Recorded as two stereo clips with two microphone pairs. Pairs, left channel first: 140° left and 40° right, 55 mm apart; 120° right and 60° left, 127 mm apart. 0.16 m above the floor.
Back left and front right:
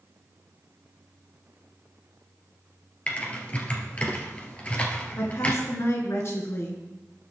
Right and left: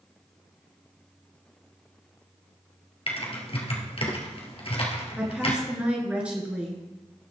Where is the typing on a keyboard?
160° right, 2 m.